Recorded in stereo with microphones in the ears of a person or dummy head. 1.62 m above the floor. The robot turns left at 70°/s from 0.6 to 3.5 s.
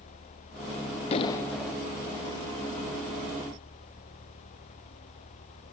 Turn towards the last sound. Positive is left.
turn(degrees=-135)